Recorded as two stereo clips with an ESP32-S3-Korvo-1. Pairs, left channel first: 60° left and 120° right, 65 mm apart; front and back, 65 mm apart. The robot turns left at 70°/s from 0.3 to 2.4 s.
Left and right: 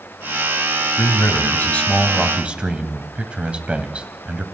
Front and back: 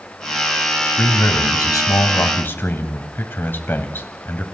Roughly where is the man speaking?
Ahead left.